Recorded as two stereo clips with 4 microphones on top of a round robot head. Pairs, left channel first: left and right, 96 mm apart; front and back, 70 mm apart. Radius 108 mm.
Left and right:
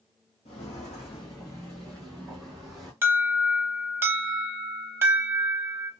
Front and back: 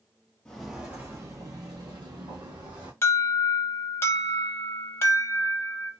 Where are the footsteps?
80° left, 0.6 m; by 2.9 s straight behind, 1.5 m.